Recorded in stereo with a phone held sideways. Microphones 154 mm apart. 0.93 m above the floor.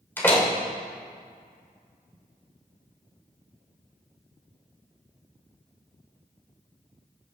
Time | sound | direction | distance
0.2 | a door slam | 15° left (ahead or behind) | 2 m